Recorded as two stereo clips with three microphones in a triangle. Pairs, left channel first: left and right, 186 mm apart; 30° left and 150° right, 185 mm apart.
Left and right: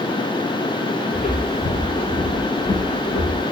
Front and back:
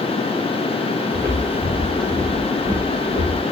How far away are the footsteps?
About 8.5 m.